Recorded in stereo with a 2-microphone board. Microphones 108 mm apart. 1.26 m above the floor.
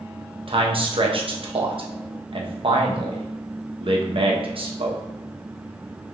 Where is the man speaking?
55° right (ahead or behind), 0.9 m.